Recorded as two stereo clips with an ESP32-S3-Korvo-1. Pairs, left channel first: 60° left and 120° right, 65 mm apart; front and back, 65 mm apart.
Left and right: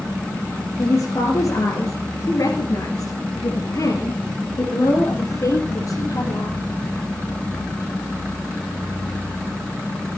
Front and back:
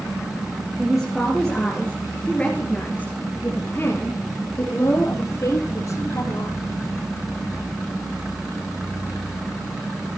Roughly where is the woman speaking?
Left.